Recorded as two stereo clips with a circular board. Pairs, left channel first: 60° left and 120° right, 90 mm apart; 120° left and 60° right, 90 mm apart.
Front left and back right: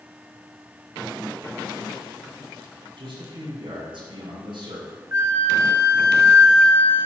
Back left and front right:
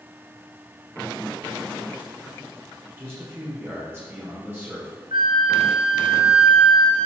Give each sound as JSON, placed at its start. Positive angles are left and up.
{"t": 3.0, "sound": "a man speaking", "azimuth_deg": -125, "distance_m": 3.0}
{"t": 5.1, "sound": "a flute", "azimuth_deg": -65, "distance_m": 1.1}